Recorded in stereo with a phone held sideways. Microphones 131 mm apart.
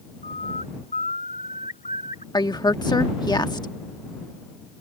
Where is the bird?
85° left.